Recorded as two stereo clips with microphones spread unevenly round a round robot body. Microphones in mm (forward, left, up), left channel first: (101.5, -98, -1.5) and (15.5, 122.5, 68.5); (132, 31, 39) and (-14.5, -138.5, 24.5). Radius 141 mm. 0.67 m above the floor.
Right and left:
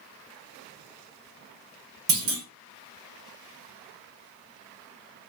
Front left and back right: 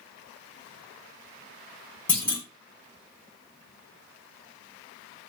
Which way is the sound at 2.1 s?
135° left.